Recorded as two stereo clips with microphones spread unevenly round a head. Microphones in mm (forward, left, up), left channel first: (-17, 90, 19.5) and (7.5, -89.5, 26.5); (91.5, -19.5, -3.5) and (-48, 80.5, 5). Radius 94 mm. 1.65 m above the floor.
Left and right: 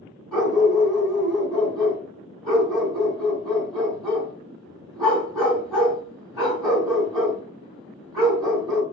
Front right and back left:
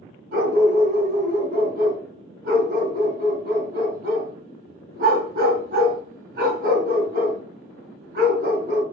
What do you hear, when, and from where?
0.3 s a dog barking: 170° right, 3 m